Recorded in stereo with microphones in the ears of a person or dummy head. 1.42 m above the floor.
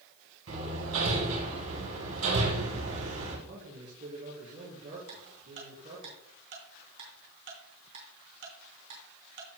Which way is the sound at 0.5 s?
85° right.